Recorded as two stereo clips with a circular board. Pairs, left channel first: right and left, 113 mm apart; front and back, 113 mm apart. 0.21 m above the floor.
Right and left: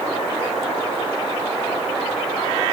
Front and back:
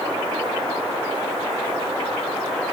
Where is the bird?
I don't hear a bird.